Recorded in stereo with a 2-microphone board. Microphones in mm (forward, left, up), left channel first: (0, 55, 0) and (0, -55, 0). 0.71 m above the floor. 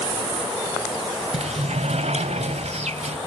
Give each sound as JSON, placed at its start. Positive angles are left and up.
{"t": 1.3, "sound": "a sliding door", "side_deg": -75, "distance_m": 1.2}